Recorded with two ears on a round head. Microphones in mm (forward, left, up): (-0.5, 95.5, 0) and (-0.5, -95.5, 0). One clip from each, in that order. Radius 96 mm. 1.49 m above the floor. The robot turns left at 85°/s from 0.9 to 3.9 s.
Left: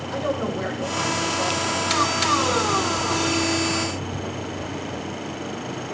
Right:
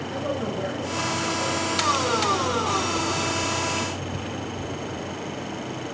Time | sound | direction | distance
0.1 | a woman speaking | 35° left | 8.5 m